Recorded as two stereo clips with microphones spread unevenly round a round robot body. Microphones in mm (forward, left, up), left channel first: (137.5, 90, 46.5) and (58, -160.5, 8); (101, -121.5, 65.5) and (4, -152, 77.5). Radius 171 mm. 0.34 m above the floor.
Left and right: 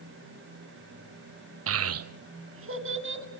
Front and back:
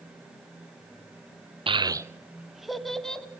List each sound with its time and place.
1.7 s a child speaking: 125° right, 0.7 m; by 3.2 s 65° right, 2 m